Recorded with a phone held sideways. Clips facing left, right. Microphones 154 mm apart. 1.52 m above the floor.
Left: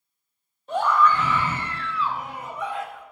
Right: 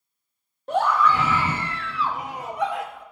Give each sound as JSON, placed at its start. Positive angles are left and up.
{"t": 0.7, "sound": "a scream", "side_deg": -65, "distance_m": 2.0}